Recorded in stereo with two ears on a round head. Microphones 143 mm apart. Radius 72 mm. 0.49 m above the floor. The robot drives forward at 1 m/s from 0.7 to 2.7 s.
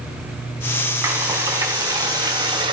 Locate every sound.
1.0 s frying: 15° right (ahead or behind), 3.5 m; by 2.7 s 30° right (ahead or behind), 2 m